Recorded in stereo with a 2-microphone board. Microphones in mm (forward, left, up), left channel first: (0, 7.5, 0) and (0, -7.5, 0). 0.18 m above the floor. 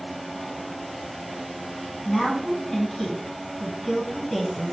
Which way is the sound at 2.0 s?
25° left (ahead or behind).